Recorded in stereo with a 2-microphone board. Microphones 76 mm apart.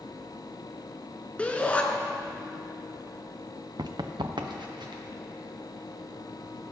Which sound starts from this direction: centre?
A shout, at 1.4 s.